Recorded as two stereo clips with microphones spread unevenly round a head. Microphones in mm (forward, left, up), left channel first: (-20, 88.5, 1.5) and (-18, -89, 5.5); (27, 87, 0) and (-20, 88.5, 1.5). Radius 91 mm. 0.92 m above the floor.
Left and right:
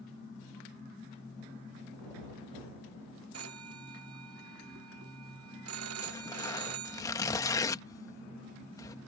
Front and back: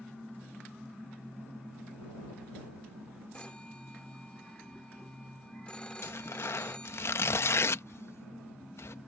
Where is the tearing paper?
20° left.